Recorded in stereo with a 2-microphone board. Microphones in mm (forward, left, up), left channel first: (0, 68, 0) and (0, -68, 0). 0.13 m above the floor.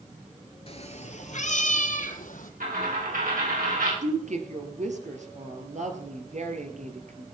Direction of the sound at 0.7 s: 50° left (ahead or behind).